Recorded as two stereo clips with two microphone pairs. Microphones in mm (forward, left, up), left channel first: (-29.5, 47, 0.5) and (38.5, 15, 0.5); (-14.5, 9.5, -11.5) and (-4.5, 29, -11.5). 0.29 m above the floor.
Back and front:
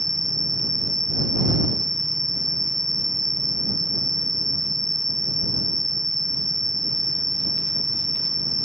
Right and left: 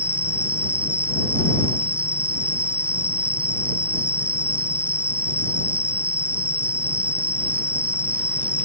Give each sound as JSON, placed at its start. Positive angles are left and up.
{"t": 0.0, "sound": "an insect", "azimuth_deg": 70}